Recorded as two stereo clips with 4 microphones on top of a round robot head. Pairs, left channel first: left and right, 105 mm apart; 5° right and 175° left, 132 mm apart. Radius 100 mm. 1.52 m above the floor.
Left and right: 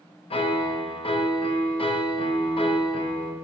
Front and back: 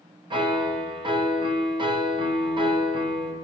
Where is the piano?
120° left, 0.8 m.